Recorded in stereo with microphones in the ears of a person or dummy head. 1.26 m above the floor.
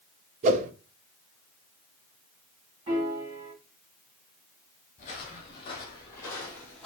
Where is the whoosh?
45° right (ahead or behind), 0.7 m.